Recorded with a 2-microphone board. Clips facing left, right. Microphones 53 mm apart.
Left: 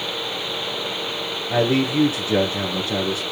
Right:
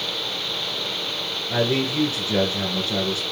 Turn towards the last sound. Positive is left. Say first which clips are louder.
# left 3 dB
turn(degrees=20)  # may be behind; listen again after turning